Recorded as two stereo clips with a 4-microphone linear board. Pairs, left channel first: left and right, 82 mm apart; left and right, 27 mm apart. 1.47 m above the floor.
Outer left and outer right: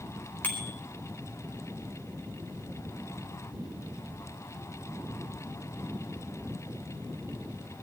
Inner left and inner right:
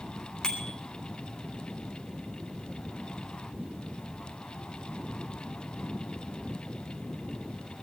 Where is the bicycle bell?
20° left (ahead or behind), 4 m.